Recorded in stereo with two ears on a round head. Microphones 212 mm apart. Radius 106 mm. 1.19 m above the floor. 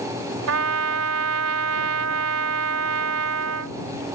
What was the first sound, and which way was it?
A trumpet, 70° right (ahead or behind).